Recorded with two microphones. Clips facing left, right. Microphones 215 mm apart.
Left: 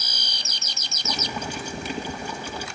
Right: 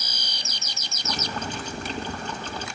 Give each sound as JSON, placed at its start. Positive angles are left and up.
{"t": 1.0, "sound": "boiling", "side_deg": 10, "distance_m": 2.5}